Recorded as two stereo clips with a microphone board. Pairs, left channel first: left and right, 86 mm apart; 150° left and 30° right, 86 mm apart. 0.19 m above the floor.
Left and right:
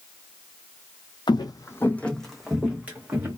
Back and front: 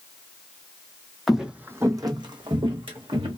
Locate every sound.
1.3 s footsteps: 60° left, 0.5 m; by 3.4 s 25° right, 1.1 m